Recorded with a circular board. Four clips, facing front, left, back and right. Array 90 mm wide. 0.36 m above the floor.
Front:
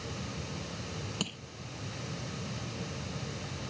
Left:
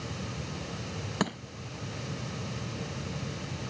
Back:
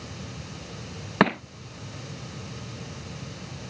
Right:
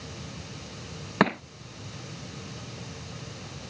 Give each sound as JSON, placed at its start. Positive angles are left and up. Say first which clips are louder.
{"t": 1.2, "sound": "crushing", "louder": "right 9 dB, back 23 dB", "azimuth_deg": -150}